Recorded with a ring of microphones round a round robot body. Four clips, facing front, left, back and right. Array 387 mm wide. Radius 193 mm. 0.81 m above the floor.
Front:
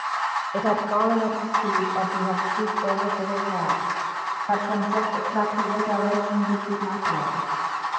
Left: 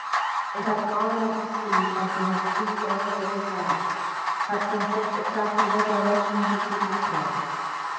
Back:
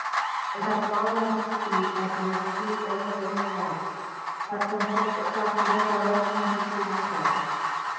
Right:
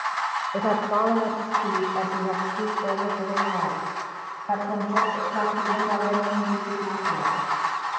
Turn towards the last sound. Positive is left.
turn(degrees=-10)